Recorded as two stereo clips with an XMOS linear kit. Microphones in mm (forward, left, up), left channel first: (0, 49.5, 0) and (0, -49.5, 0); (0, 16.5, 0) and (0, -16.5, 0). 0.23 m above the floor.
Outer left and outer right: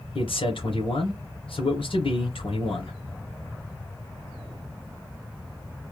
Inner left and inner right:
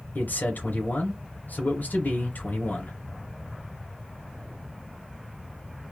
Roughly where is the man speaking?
Left.